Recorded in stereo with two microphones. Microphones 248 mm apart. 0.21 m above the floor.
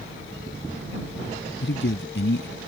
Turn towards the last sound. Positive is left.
turn(degrees=50)  # may be behind; listen again after turning